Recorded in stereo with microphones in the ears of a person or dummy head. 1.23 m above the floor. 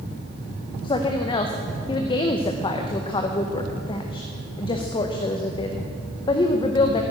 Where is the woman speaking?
25° left (ahead or behind), 0.8 m.